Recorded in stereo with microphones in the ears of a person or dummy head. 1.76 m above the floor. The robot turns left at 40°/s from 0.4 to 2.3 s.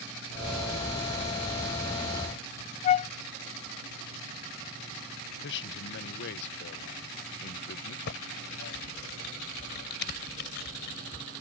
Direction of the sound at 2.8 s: 35° left (ahead or behind).